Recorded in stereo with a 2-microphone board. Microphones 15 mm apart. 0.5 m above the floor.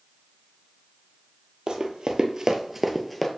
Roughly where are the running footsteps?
Right.